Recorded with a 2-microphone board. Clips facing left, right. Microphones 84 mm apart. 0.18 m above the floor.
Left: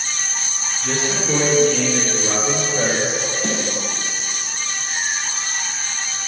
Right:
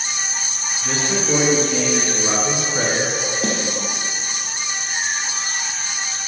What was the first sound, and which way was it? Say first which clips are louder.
A man speaking: even; 5° right (ahead or behind).